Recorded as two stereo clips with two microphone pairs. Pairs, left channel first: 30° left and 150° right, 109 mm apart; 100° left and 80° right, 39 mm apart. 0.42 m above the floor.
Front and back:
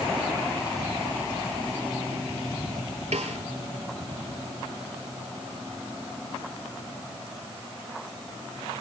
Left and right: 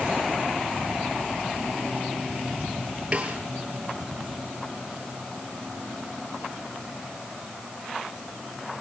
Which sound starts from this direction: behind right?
A snare drum, at 3.1 s.